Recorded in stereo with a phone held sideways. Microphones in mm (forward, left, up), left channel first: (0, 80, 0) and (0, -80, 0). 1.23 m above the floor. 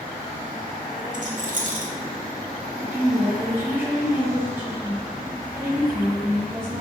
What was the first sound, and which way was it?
A rattle, 55° right (ahead or behind).